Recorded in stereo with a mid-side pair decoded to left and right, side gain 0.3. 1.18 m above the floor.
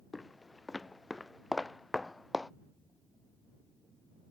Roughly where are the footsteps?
Ahead left.